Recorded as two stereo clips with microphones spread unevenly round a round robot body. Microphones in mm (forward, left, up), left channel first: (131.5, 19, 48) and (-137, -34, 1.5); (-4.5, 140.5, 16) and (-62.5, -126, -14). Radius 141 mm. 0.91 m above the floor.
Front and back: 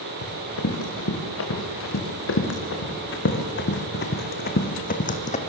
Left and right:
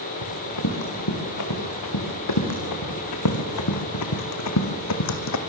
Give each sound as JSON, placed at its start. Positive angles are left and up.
{"t": 0.2, "sound": "running footsteps", "azimuth_deg": 50, "distance_m": 4.5}